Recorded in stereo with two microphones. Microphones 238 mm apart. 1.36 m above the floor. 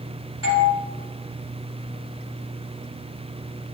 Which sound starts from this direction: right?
A doorbell, at 0.4 s.